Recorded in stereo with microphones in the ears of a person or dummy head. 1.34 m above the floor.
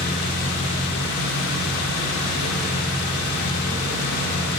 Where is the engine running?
80° left, 3 m.